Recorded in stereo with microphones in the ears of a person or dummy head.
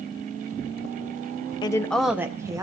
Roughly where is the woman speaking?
Left.